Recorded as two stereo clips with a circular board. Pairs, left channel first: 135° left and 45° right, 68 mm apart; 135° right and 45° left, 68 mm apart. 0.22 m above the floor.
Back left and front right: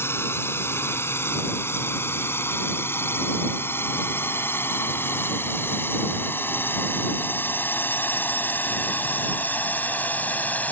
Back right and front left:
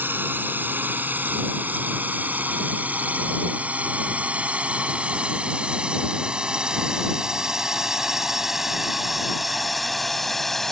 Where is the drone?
95° left; by 10.7 s 145° left.